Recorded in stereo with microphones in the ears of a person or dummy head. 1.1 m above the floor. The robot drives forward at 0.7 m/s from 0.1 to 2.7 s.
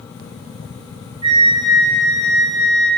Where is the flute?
25° right (ahead or behind), 0.7 m; by 2.9 s 10° right (ahead or behind), 1.5 m.